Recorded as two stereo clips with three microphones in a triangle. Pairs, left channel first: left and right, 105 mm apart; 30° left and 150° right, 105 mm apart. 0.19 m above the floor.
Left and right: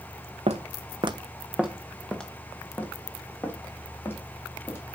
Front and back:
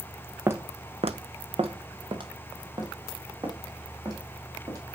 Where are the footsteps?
80° right, 1.0 m; by 4.8 s 155° left, 5 m.